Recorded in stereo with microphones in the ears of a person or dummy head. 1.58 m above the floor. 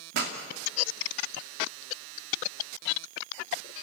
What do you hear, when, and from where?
0.1 s a pop: 55° right (ahead or behind), 2.5 m